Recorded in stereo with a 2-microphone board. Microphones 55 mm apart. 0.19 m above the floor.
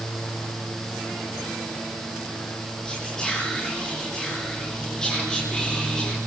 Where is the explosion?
I don't hear an explosion.